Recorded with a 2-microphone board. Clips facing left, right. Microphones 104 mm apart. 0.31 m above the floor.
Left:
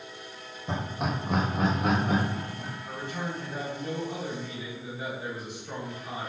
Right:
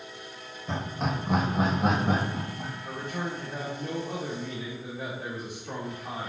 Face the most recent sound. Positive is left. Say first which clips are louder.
# right 1 dB
turn(degrees=-50)  # may be behind; listen again after turning